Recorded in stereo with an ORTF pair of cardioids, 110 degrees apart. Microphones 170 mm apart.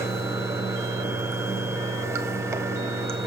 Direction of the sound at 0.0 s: 15° right.